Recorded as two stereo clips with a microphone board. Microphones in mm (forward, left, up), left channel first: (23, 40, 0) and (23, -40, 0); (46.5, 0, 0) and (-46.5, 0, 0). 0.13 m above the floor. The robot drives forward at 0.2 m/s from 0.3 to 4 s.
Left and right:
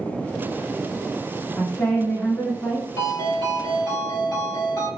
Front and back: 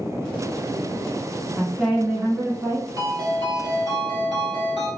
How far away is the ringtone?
About 1.8 m.